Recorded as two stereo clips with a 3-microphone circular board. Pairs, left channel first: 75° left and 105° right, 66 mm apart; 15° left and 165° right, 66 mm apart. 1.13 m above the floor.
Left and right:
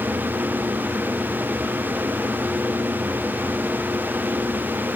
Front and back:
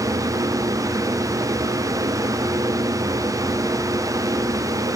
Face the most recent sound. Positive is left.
No sound to turn to.